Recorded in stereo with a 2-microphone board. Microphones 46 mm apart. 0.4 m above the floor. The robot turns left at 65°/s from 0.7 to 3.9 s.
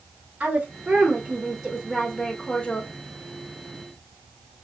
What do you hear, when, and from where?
0.4 s a woman speaking: 30° right (ahead or behind), 0.9 m; by 2.9 s 30° left (ahead or behind), 0.9 m